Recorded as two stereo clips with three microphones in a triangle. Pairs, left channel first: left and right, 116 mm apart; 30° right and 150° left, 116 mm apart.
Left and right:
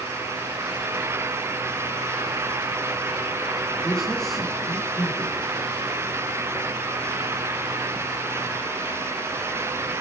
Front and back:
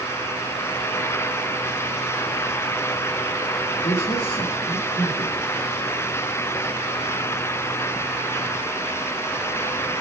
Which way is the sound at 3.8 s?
5° left.